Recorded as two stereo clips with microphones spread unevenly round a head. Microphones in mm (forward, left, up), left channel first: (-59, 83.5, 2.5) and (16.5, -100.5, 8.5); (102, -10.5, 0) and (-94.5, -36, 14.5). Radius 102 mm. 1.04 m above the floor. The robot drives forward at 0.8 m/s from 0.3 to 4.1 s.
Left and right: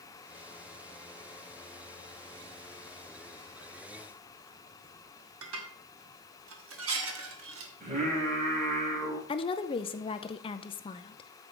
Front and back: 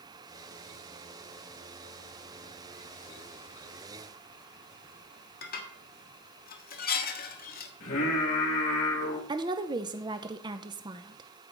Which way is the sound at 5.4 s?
40° right.